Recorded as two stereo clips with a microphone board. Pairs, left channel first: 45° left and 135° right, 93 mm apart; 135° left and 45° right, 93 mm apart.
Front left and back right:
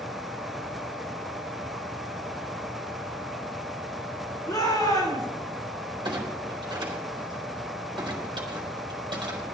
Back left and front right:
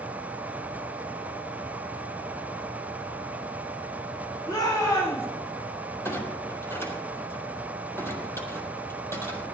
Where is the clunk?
165° right, 4 m.